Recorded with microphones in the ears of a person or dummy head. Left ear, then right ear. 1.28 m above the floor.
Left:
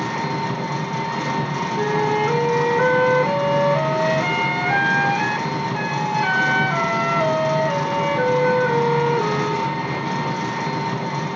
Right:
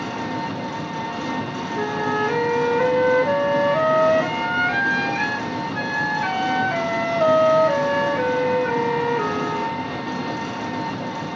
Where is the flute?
35° left (ahead or behind), 5.5 m.